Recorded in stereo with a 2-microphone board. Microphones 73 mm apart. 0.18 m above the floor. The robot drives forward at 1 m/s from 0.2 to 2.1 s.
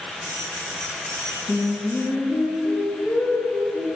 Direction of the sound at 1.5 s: 5° left (ahead or behind).